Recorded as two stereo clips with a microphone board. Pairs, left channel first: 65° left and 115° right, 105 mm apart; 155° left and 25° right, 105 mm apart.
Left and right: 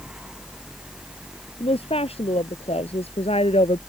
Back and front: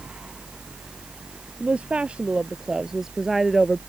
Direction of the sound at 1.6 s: 55° left.